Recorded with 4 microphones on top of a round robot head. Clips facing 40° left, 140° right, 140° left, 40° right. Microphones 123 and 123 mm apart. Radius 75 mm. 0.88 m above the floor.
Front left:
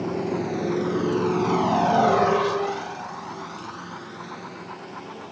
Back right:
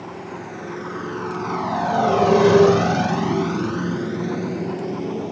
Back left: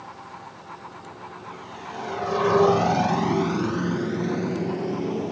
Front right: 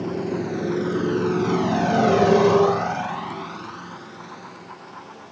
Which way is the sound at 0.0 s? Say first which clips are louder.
Front left 7 dB, front right 15 dB; 20° right.